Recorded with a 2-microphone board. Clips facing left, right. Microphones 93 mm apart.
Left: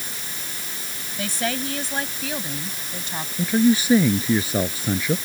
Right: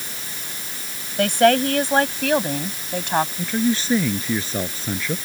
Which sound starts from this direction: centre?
A man speaking, at 3.4 s.